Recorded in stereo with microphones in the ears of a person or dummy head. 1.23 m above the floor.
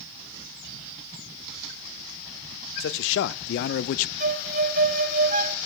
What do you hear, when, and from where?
2.8 s a man speaking: 70° left (ahead or behind), 1.3 m; by 4.1 s 40° left (ahead or behind), 0.6 m
4.2 s a violin: 50° right (ahead or behind), 1.2 m